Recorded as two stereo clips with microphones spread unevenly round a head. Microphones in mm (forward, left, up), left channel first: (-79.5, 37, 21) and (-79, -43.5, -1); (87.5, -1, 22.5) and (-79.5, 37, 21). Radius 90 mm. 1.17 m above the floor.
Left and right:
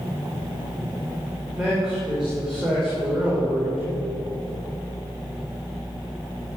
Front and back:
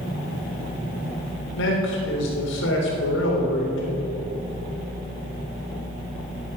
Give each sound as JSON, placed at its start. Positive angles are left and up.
{"t": 1.6, "sound": "a man speaking", "azimuth_deg": 0, "distance_m": 3.5}